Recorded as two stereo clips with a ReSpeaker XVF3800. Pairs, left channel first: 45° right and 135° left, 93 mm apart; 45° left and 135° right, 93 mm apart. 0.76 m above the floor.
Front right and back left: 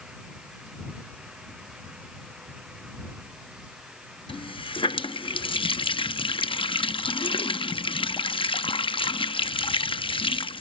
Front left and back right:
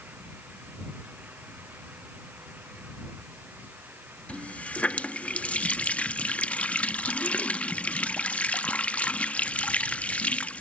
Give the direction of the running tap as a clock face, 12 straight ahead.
1 o'clock.